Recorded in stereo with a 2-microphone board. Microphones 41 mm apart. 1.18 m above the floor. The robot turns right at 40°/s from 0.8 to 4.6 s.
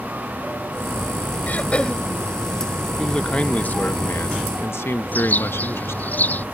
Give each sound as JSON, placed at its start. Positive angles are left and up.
{"t": 1.5, "sound": "throat clearing", "side_deg": 40}
{"t": 3.0, "sound": "a man speaking", "azimuth_deg": 15}
{"t": 5.1, "sound": "a bird", "side_deg": 45}